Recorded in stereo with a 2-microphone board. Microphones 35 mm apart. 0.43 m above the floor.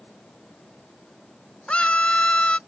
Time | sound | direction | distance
1.7 | a scream | 35° left (ahead or behind) | ?